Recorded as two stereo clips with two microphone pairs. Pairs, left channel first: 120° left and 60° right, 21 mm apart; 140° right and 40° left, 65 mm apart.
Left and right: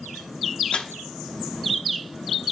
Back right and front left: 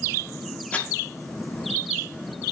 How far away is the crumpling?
About 1.0 m.